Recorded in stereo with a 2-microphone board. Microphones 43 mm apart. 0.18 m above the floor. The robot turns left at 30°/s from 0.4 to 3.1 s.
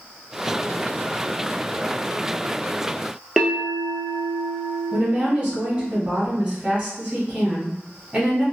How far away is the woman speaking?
About 1.3 m.